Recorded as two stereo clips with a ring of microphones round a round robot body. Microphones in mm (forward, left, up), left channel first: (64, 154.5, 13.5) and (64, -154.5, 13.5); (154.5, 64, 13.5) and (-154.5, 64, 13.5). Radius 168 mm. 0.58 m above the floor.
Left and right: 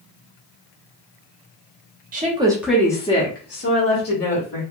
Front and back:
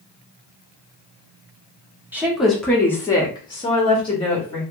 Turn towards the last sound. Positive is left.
turn(degrees=70)